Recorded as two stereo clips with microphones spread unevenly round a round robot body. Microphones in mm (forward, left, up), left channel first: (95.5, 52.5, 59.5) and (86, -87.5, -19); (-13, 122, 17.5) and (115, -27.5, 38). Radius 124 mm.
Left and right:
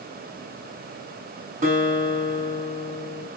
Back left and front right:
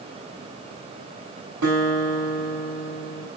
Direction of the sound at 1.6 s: 70° right.